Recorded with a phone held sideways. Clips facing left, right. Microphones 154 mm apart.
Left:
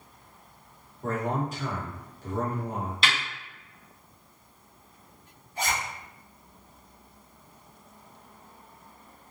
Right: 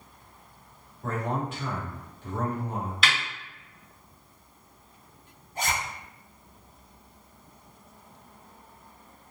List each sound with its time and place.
1.0 s a man speaking: 40° left (ahead or behind), 1.2 m
3.0 s a snare drum: 30° left (ahead or behind), 1.3 m
5.5 s a zipper: 50° right (ahead or behind), 1.0 m